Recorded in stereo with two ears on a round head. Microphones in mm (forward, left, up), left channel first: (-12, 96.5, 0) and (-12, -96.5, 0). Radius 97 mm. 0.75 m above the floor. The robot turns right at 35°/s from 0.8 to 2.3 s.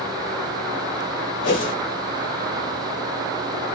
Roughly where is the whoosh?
Left.